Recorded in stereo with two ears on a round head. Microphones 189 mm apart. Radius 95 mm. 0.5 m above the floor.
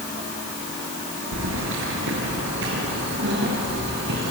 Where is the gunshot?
I don't hear a gunshot.